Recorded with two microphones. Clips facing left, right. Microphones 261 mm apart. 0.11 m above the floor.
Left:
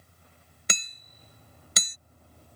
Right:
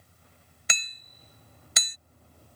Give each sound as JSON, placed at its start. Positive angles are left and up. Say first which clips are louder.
{"t": 0.7, "sound": "hammering", "louder": "left 5 dB", "side_deg": 40}